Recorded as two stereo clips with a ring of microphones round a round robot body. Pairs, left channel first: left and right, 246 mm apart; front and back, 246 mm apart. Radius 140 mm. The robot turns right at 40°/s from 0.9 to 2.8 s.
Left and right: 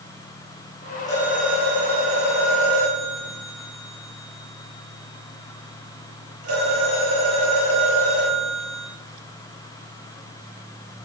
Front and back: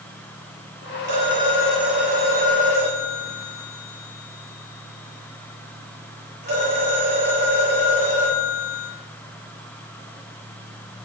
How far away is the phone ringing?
About 8.5 m.